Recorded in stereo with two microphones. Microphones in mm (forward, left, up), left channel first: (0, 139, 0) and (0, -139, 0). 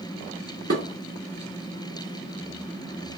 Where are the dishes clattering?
55° right (ahead or behind), 1.5 m.